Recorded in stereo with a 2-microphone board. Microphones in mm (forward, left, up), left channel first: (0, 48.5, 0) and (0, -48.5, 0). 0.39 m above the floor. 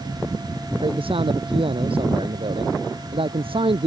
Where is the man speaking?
70° right (ahead or behind).